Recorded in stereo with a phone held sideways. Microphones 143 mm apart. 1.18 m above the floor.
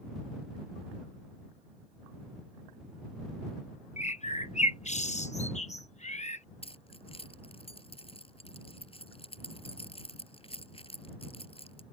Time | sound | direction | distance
4.0 | a bird | 55° left (ahead or behind) | ?
6.6 | keys jangling | 40° left (ahead or behind) | ?